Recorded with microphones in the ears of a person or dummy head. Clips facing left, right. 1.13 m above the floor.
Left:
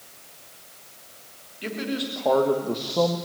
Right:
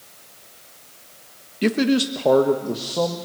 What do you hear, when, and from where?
1.6 s a man speaking: 75° right (ahead or behind), 1.4 m; by 3.2 s centre (ahead or behind), 2 m